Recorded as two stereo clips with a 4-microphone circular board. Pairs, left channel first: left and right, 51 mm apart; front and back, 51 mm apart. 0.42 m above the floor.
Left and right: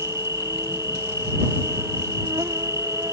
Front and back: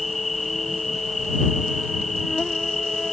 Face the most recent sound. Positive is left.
turn(degrees=-90)